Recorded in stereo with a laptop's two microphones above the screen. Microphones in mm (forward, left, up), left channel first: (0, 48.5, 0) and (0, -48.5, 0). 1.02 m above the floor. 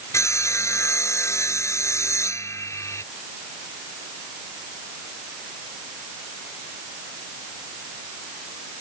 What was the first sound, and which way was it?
Sawing, 30° left (ahead or behind).